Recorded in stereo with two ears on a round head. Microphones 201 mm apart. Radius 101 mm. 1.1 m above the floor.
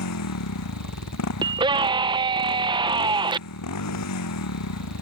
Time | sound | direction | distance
0.0 | a motorcycle | 85° left | ?
1.4 | a scream | 20° right (ahead or behind) | ?